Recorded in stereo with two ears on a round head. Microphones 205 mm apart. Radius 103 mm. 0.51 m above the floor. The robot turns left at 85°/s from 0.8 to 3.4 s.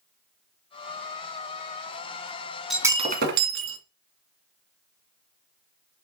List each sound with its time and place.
2.7 s breaking glass: straight ahead, 1.9 m; by 3.8 s 60° right, 1.9 m